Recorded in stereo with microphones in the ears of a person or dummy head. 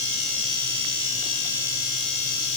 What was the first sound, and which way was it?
Only background noise.